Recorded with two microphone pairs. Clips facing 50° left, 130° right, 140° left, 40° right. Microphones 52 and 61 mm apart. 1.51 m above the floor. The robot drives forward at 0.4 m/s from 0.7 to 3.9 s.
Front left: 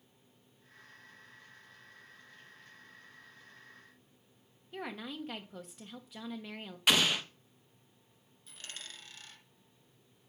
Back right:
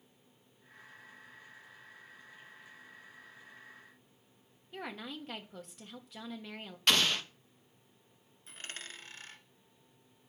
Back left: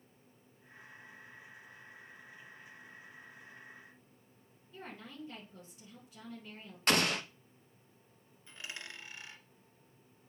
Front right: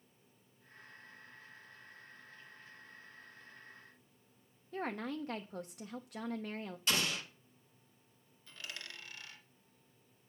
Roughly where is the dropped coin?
Behind.